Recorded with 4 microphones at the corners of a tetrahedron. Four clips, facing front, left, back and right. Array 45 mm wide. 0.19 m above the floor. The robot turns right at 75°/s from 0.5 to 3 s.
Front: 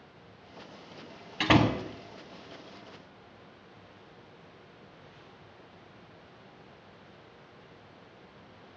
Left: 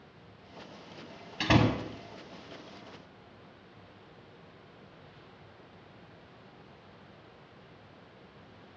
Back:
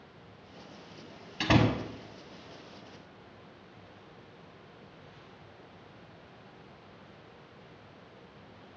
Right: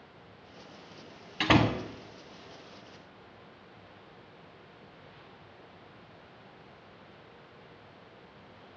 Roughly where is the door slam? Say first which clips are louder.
Right 1 dB, front 2 dB; ahead right.